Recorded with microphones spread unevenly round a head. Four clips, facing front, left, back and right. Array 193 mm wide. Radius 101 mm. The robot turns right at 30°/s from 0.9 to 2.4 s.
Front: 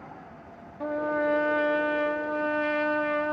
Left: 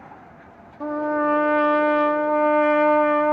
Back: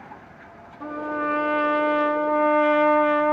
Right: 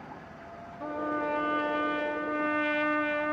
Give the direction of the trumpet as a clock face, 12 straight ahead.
9 o'clock.